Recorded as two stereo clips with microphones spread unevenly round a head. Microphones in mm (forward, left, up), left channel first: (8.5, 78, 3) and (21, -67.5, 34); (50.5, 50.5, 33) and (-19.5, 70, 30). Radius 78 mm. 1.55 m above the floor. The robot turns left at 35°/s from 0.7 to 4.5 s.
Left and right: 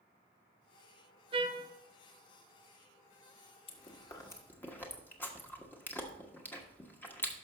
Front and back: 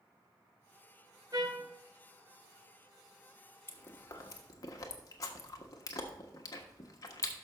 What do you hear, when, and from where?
1.3 s a trumpet: 130° right, 0.6 m; by 1.7 s 145° right, 0.6 m
3.7 s chewing: 40° left, 1.3 m; by 7.3 s 10° left, 1.3 m